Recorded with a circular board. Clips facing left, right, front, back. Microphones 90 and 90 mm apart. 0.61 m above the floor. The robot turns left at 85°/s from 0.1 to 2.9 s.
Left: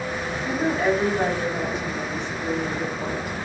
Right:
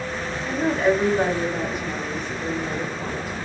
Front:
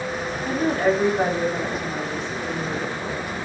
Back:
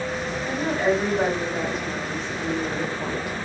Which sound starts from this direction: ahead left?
A woman speaking, at 0.5 s.